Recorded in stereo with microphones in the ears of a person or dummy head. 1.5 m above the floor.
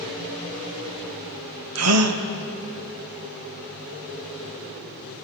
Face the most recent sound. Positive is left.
turn(degrees=-85)